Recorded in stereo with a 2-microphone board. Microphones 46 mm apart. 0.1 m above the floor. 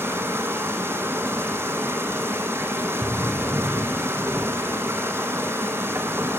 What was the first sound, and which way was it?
Running water, 65° right (ahead or behind).